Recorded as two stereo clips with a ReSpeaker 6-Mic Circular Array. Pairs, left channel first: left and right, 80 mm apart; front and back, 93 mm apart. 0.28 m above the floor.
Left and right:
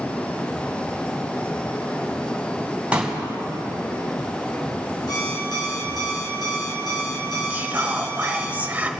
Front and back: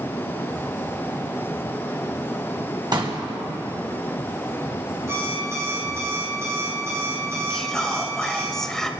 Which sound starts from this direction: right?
Whispering, at 7.5 s.